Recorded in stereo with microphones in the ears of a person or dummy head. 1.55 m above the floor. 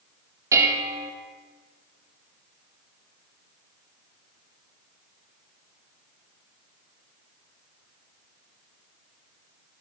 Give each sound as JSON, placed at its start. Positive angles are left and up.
{"t": 0.5, "sound": "dishes clattering", "side_deg": -20, "distance_m": 0.9}